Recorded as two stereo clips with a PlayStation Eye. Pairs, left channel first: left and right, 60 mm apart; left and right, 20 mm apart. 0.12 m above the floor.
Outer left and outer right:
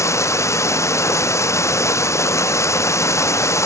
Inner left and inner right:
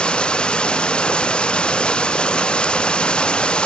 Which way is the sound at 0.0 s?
55° left (ahead or behind).